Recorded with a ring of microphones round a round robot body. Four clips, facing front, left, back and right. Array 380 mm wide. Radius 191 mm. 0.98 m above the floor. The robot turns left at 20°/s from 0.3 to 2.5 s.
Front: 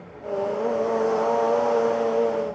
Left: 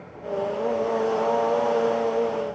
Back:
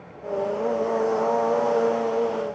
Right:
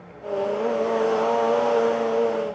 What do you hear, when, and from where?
Only background noise.